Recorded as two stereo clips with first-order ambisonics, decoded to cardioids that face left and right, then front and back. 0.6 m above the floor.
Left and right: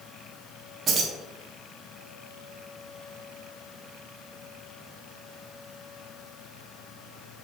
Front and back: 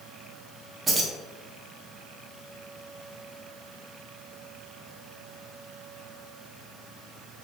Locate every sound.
0.9 s keys jangling: 125° right, 0.6 m